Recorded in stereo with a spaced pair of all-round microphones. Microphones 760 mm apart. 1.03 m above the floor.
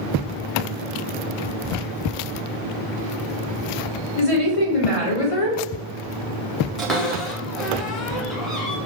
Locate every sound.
4.2 s a woman speaking: 45° left (ahead or behind), 0.8 m
6.8 s a cupboard door: centre (ahead or behind), 0.5 m